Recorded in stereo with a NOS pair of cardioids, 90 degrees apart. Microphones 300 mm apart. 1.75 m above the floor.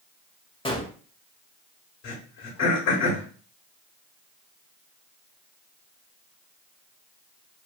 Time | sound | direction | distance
0.7 | a gunshot | 20° left | 1.2 m
2.0 | throat clearing | 60° left | 1.7 m